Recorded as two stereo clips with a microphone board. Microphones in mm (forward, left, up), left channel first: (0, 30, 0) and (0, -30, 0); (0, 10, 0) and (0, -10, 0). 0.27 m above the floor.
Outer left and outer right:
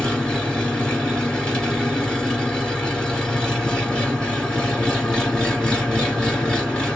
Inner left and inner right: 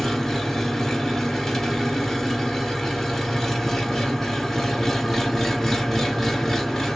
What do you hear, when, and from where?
0.0 s an engine running: 15° left (ahead or behind), 1.5 m